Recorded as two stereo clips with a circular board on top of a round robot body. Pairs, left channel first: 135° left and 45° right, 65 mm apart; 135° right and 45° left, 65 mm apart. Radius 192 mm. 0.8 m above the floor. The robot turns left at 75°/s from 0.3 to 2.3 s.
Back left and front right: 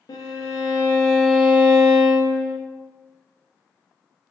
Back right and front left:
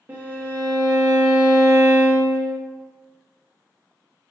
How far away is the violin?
About 0.6 m.